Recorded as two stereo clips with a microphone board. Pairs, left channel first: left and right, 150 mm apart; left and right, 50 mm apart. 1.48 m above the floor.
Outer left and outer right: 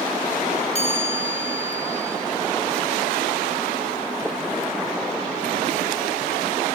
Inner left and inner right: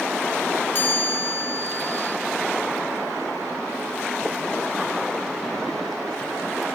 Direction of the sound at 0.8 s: 50° left (ahead or behind).